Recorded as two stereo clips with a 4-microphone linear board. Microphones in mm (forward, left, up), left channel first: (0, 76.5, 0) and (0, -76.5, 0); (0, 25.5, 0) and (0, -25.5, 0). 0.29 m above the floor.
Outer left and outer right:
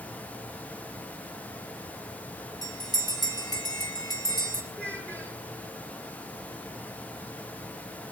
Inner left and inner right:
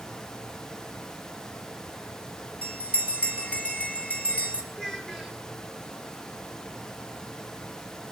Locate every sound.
2.6 s a bell: 25° left (ahead or behind), 3.5 m
4.7 s a child speaking: 10° left (ahead or behind), 4 m